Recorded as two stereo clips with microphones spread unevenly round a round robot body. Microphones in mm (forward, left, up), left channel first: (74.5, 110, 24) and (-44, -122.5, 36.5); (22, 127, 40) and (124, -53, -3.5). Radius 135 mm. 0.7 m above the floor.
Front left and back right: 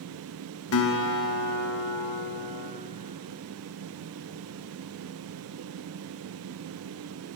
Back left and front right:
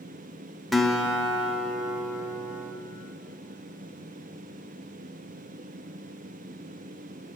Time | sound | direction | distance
0.7 | a guitar | 25° left | 0.7 m